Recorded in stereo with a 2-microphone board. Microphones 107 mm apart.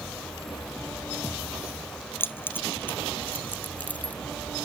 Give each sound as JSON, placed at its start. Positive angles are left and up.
{"t": 2.2, "sound": "keys jangling", "side_deg": 20}